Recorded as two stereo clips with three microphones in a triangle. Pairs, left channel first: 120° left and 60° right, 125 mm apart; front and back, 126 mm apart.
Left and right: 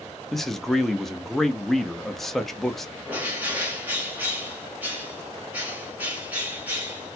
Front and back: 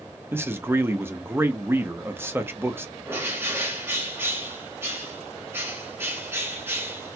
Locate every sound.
0.3 s a man speaking: 155° right, 0.5 m
3.1 s a bird: 125° right, 1.3 m